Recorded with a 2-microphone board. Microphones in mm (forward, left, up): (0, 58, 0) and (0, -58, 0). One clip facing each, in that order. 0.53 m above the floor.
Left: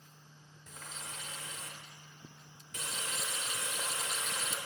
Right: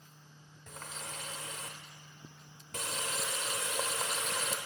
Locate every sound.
0.7 s a running tap: 60° right (ahead or behind), 1.2 m